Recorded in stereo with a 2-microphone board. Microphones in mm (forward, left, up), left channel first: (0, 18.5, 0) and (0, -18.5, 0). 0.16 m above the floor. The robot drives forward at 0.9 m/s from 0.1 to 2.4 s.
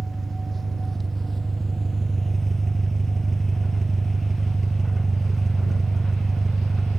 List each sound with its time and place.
0.0 s an engine running: 5° left (ahead or behind); by 7.0 s 10° left (ahead or behind)